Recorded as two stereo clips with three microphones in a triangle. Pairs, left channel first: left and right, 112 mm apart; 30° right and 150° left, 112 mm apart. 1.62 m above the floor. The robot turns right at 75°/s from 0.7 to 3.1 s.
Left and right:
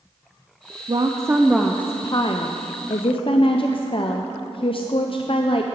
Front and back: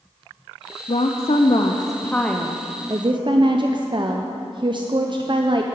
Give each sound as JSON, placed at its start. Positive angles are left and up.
{"t": 0.9, "sound": "a woman speaking", "azimuth_deg": -50, "distance_m": 0.5}